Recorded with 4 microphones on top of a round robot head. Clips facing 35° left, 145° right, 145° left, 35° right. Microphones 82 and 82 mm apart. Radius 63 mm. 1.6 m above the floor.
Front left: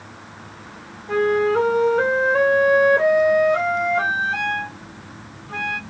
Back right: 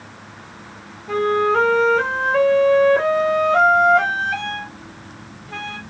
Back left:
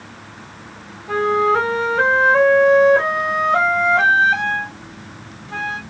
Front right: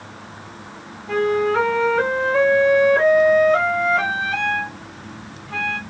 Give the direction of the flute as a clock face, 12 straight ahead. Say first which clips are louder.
Even, back left 2 dB; 5 o'clock.